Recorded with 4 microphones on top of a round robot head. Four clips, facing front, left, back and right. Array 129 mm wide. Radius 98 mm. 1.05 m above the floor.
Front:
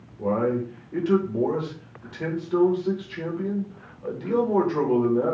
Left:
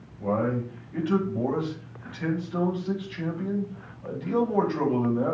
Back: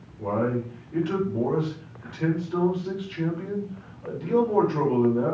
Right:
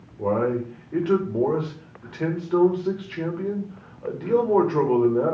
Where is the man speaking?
75° right, 4.5 m.